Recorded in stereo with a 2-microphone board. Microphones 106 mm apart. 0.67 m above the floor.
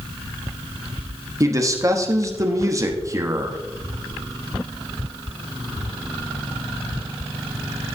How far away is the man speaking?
About 1.1 m.